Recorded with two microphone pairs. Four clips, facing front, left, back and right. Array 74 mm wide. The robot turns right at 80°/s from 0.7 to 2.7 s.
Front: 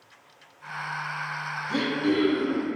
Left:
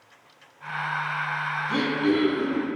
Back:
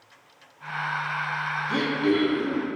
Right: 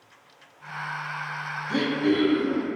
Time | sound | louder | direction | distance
1.7 | throat clearing | right 1 dB, back 1 dB | 115° left | 1.8 m